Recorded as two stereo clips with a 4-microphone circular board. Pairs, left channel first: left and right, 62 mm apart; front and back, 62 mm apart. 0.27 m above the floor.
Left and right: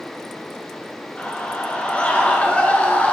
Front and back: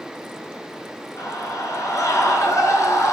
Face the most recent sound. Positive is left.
turn(degrees=25)